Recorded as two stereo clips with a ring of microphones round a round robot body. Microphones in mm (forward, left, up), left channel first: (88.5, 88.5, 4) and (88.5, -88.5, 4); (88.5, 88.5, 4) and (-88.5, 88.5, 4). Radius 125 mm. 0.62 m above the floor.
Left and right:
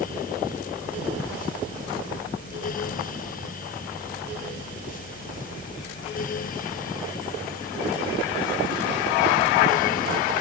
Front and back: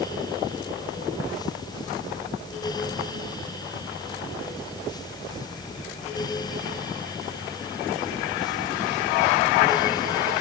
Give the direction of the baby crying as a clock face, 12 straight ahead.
No baby crying in this recording.